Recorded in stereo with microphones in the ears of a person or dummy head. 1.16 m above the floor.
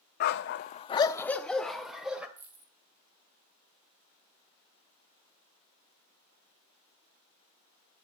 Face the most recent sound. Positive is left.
turn(degrees=-10)  # may be behind; listen again after turning